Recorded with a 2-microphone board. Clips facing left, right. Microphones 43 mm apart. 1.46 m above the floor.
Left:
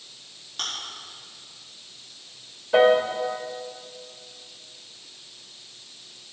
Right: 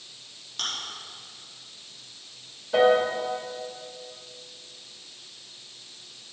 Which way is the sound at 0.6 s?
5° left (ahead or behind).